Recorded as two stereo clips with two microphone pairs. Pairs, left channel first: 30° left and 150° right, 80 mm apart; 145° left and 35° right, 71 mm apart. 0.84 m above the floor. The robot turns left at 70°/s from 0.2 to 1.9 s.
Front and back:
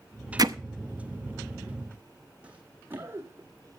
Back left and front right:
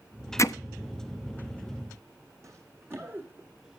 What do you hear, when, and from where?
0.4 s hammering: 175° right, 0.6 m; by 0.6 s 175° left, 0.6 m
2.4 s running footsteps: 75° right, 2.0 m; by 3.5 s 105° right, 1.8 m